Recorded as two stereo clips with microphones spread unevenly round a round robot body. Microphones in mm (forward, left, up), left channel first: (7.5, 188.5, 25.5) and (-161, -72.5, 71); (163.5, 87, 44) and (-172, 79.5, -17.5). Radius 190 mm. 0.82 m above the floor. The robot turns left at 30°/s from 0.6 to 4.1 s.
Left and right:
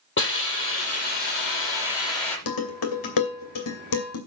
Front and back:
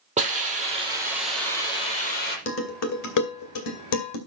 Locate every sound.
0.2 s a hiss: 110° left, 6 m; by 2.4 s 60° left, 6 m
2.5 s dishes clattering: 55° left, 2.5 m; by 4.2 s 10° left, 2.5 m